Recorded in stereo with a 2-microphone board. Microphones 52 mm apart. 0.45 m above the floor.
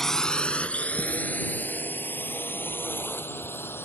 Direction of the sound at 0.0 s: 5° left (ahead or behind).